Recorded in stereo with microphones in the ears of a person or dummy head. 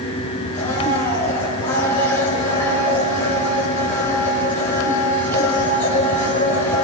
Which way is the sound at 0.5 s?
15° left (ahead or behind).